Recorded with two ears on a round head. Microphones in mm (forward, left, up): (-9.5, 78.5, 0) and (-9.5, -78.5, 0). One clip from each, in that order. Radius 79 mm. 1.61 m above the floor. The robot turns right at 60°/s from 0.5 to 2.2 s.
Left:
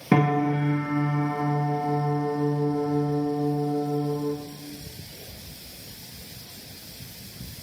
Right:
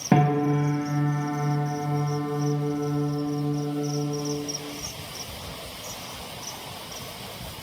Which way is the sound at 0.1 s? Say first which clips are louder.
Even; 15° left.